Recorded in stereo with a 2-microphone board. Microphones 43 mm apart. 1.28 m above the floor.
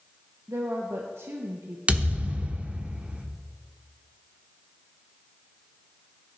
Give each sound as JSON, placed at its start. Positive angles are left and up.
{"t": 0.5, "sound": "a woman speaking", "side_deg": -70, "distance_m": 1.0}
{"t": 1.9, "sound": "a thud", "side_deg": -30, "distance_m": 1.0}